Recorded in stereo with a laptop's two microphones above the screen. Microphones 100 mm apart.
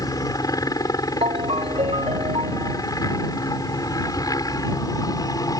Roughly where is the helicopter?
Left.